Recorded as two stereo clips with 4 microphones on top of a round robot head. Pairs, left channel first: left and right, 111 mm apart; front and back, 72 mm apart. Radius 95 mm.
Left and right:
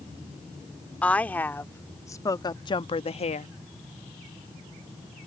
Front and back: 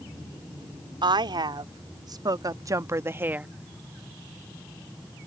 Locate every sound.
1.0 s a woman speaking: 170° left; by 3.5 s 105° left